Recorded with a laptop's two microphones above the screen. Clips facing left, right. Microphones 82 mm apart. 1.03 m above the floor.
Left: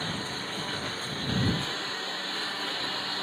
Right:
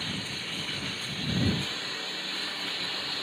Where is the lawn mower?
35° left (ahead or behind).